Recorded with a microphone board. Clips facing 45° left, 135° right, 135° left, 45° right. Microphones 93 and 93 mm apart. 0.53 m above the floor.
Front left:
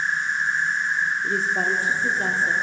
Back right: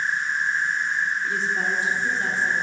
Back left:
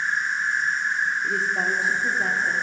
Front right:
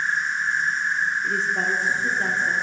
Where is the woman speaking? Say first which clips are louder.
Front left 2 dB, even; 50° left, 1.0 m.